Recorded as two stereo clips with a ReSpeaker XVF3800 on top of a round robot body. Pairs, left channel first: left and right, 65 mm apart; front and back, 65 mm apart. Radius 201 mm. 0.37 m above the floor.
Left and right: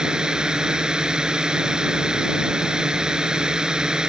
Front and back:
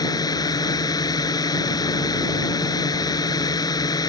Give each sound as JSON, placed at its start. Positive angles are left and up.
{"t": 0.0, "sound": "a drone", "azimuth_deg": -15}